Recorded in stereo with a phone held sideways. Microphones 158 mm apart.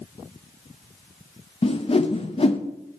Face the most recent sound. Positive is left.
turn(degrees=40)  # may be behind; listen again after turning